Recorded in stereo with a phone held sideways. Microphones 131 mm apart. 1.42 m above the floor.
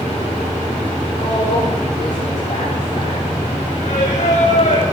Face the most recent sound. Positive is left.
turn(degrees=70)  # may be behind; listen again after turning